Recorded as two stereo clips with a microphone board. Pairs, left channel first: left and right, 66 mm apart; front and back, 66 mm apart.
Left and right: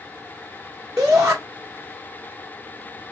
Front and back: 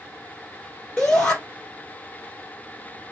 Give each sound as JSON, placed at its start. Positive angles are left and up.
{"t": 1.0, "sound": "a shout", "azimuth_deg": -70, "distance_m": 1.3}